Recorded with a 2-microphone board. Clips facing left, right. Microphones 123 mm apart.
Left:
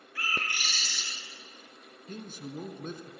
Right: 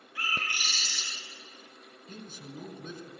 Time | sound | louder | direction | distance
0.1 | a bird | even | 15° right (ahead or behind) | 7.5 m
2.1 | a man speaking | left 4 dB | 45° left (ahead or behind) | 2.5 m